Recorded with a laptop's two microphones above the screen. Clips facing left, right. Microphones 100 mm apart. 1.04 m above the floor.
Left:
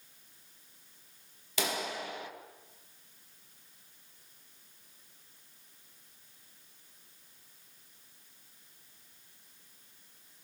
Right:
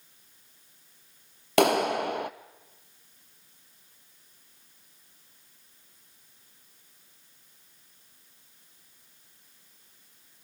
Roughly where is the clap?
Right.